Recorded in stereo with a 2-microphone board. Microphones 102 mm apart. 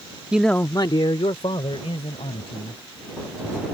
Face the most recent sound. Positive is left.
turn(degrees=70)  # may be behind; listen again after turning